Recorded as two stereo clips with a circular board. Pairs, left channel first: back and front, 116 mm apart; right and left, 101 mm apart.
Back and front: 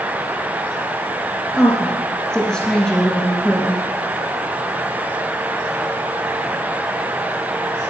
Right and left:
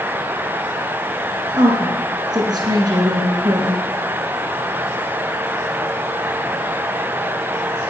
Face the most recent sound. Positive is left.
turn(degrees=100)